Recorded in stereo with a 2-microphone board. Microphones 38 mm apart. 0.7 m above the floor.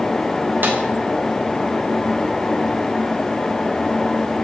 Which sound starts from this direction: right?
A snare drum, at 0.6 s.